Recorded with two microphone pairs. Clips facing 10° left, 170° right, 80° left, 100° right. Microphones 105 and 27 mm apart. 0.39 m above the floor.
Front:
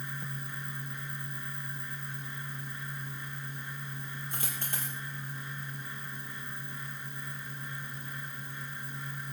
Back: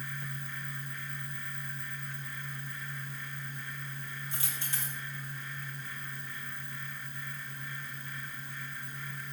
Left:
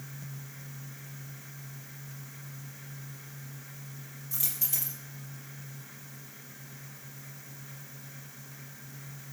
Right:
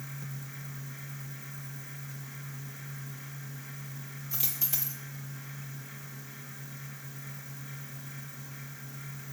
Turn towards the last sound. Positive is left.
turn(degrees=-30)